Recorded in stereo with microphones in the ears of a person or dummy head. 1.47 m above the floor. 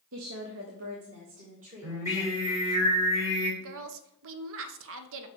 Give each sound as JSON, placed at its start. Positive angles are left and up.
{"t": 0.1, "sound": "a woman speaking", "side_deg": -65, "distance_m": 0.7}
{"t": 1.8, "sound": "singing", "side_deg": -15, "distance_m": 3.5}
{"t": 3.6, "sound": "a woman speaking", "side_deg": -70, "distance_m": 0.9}